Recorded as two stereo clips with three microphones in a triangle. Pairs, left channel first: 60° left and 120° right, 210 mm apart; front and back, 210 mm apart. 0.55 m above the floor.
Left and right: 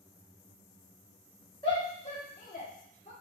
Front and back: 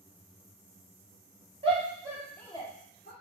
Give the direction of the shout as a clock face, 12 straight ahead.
8 o'clock.